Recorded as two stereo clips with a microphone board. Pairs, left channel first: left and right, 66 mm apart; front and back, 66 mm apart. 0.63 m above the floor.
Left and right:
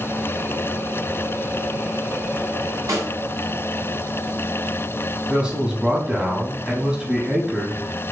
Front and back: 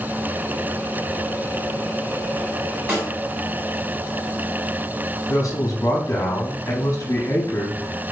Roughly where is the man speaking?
Ahead.